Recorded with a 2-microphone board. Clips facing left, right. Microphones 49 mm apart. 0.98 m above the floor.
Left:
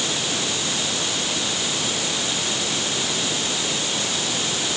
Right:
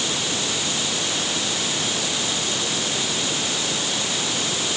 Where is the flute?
No flute in this recording.